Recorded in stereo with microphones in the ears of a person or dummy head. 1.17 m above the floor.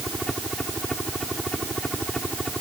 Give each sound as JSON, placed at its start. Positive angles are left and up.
{"t": 0.0, "sound": "a helicopter", "side_deg": 0}